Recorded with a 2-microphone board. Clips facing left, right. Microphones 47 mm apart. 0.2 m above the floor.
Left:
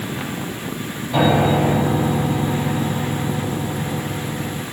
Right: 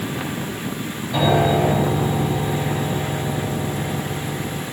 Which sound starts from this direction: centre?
A piano, at 1.1 s.